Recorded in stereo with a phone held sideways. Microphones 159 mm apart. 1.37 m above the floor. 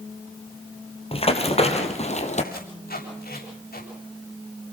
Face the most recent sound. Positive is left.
turn(degrees=85)